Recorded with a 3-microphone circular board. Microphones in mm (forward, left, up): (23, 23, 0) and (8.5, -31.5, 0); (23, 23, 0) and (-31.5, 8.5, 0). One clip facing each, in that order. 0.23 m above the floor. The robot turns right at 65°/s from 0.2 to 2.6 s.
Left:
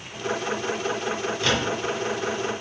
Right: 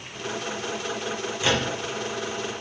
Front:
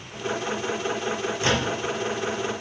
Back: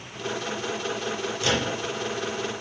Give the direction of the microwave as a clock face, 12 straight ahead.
1 o'clock.